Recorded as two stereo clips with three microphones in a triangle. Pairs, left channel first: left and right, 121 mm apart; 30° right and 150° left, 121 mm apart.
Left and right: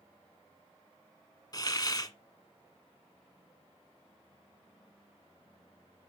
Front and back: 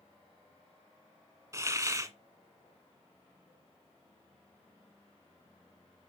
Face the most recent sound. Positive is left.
turn(degrees=110)